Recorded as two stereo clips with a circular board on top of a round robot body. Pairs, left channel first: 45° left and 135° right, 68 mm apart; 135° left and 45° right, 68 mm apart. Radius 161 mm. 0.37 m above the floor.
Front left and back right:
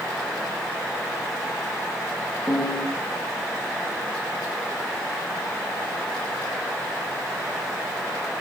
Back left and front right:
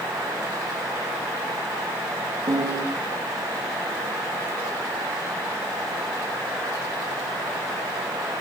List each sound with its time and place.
2.5 s a piano: 25° right, 5.5 m